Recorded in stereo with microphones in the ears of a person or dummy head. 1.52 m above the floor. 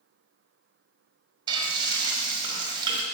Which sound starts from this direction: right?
Frying, at 1.5 s.